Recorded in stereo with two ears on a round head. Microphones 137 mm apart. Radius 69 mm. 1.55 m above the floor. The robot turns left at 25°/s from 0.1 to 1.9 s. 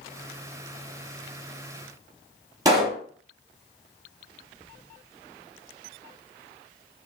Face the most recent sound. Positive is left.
turn(degrees=-25)  # may be behind; listen again after turning